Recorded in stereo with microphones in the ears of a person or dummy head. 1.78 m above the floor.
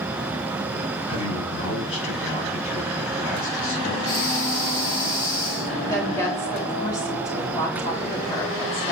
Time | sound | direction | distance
1.1 | a man speaking | 30° left (ahead or behind) | 4.5 m
4.0 | breathing | 20° left (ahead or behind) | 0.9 m
5.8 | a woman speaking | 15° left (ahead or behind) | 3.5 m